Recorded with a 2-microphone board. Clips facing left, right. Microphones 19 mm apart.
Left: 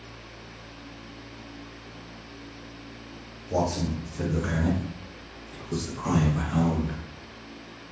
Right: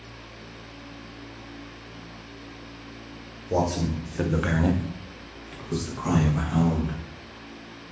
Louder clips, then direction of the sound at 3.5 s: Right 2 dB; 40° right (ahead or behind).